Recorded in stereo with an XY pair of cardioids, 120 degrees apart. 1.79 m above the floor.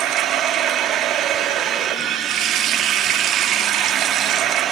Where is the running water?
70° right, 3.5 m.